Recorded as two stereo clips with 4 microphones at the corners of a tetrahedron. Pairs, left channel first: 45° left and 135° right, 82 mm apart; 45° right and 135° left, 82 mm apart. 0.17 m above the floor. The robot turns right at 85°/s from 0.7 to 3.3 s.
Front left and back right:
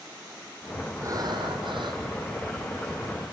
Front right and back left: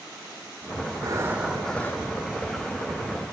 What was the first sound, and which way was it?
Breathing, 175° left.